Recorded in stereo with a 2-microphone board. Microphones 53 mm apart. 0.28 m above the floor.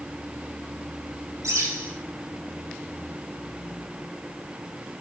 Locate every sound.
1.4 s a bird: 70° right (ahead or behind), 5.5 m